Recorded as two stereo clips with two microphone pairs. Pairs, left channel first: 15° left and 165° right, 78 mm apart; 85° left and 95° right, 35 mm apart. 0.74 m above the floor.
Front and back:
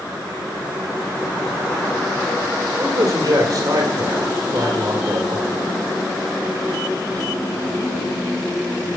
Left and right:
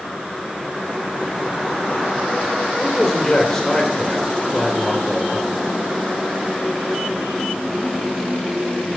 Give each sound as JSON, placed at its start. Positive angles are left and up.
{"t": 2.8, "sound": "a man speaking", "azimuth_deg": 170, "distance_m": 1.7}